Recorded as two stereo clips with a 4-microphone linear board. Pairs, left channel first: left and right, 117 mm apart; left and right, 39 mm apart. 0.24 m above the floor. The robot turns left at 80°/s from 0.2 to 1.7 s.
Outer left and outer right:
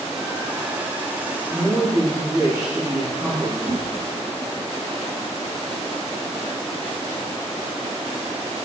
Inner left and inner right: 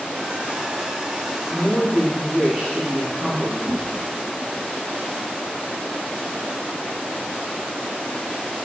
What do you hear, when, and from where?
1.5 s a woman speaking: 40° right (ahead or behind), 9.5 m; by 3.5 s 25° right (ahead or behind), 9.5 m
3.6 s a whoosh: 35° right (ahead or behind), 8 m